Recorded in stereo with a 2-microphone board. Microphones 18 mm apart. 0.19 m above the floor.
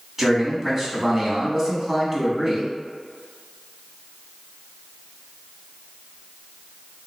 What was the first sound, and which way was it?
A man speaking, 25° right (ahead or behind).